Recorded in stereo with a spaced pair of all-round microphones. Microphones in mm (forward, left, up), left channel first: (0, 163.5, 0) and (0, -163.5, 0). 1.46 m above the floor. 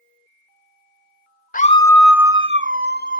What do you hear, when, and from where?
1.5 s a scream: 25° left (ahead or behind), 0.6 m; by 3.2 s 35° right (ahead or behind), 1.0 m